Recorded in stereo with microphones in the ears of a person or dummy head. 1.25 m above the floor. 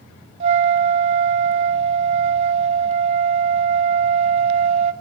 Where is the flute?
35° right (ahead or behind), 0.7 m.